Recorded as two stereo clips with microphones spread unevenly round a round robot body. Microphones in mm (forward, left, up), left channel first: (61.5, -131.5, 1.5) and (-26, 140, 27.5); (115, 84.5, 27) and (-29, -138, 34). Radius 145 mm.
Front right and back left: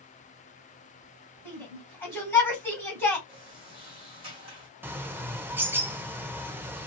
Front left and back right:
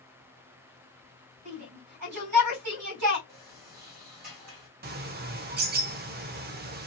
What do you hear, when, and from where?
1.4 s a shout: 155° right, 3 m
3.3 s a sliding door: straight behind, 2.5 m
4.8 s a bird: 165° right, 0.6 m